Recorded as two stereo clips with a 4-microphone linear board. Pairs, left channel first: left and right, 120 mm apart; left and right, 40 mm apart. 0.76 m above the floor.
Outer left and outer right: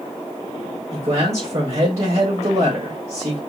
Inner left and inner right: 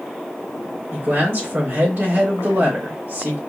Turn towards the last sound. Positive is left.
turn(degrees=-70)  # may be behind; listen again after turning